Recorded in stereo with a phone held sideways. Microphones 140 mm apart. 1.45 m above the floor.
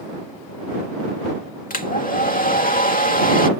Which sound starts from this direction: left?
A hair dryer, at 1.7 s.